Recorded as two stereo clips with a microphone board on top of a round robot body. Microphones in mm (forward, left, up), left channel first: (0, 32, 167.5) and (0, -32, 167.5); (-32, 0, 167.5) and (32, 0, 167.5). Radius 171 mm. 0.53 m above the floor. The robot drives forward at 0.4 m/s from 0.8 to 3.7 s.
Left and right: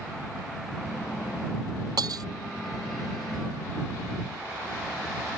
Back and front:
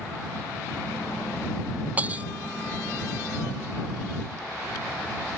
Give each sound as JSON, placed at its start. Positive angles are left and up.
{"t": 2.0, "sound": "breaking glass", "azimuth_deg": -70}